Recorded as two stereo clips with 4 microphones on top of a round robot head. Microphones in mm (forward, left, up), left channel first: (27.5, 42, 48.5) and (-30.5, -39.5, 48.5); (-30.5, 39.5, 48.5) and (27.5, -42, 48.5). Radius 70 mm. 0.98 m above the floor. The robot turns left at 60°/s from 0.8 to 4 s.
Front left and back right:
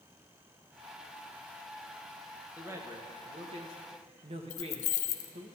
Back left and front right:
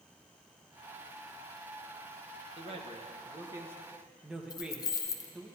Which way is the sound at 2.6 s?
50° right.